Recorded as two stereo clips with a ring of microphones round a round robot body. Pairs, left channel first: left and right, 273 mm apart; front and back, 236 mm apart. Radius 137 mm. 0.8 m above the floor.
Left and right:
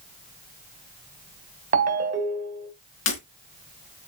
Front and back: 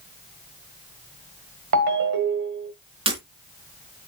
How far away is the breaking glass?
About 3 m.